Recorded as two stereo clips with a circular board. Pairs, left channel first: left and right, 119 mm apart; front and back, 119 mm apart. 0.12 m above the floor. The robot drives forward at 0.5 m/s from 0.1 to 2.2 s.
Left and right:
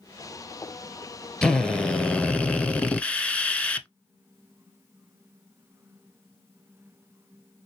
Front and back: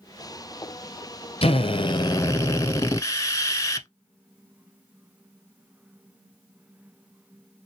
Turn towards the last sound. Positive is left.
turn(degrees=20)